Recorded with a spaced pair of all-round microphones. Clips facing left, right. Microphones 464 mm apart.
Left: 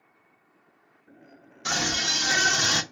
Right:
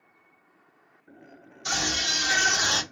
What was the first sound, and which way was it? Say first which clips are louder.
A scream: left 2 dB; 75° left (ahead or behind).